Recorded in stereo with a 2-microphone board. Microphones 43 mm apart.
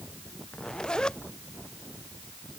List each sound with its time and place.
0.5 s a zipper: 20° left (ahead or behind)